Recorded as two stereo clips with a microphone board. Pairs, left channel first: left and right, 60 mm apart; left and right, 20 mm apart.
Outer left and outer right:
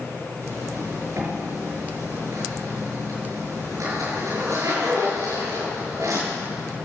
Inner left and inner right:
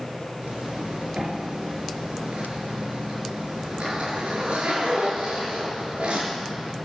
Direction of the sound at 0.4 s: 65° right (ahead or behind).